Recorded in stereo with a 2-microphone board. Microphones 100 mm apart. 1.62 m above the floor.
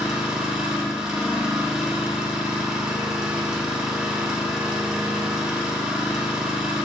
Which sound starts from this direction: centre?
An engine running, at 0.0 s.